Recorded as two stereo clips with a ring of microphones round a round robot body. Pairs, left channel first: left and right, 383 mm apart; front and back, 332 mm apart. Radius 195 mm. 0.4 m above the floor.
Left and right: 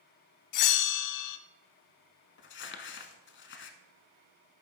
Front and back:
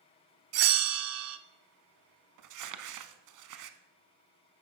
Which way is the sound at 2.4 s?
150° left.